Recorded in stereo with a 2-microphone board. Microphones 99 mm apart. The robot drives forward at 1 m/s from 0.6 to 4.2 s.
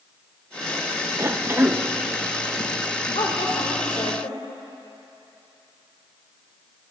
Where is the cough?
25° right (ahead or behind), 0.6 m; by 1.8 s 20° right (ahead or behind), 0.9 m.